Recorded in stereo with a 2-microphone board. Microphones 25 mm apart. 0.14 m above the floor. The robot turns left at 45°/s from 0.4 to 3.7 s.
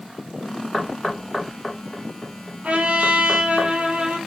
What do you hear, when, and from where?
0.7 s knocking: centre (ahead or behind), 1.2 m; by 3.6 s 15° left (ahead or behind), 1.2 m
2.6 s a trumpet: 65° right, 1.4 m; by 4.2 s 110° right, 1.4 m